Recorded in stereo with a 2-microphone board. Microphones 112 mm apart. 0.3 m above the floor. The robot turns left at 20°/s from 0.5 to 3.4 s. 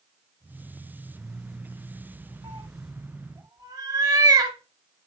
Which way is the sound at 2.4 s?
50° right (ahead or behind).